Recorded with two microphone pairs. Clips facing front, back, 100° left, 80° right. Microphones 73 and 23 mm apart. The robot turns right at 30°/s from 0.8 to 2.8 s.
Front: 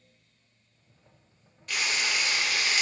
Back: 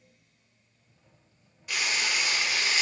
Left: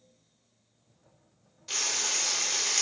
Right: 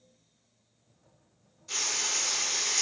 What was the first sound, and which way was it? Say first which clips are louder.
Frying: even, left 1 dB; 95° left.